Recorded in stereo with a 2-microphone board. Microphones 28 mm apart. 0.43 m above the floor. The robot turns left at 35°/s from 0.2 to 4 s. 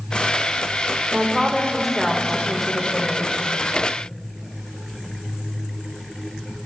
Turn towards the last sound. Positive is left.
turn(degrees=105)